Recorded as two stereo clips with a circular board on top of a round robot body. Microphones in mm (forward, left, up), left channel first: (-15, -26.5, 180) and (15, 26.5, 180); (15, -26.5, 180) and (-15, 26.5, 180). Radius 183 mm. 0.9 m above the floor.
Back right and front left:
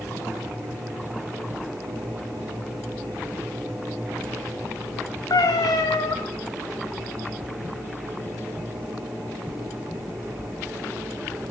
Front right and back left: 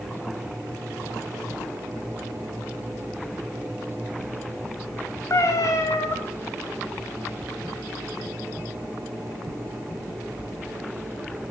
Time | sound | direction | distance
5.3 | a cat meowing | 100° right | 1.6 m